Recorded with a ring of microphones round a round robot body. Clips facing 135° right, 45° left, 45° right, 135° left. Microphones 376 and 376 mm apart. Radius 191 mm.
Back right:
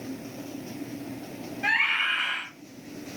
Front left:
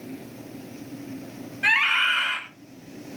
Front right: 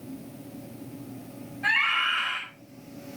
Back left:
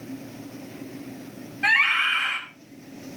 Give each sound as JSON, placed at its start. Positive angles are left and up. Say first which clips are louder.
{"t": 1.6, "sound": "a scream", "louder": "front left 1 dB, back left 3 dB", "azimuth_deg": 100, "distance_m": 4.5}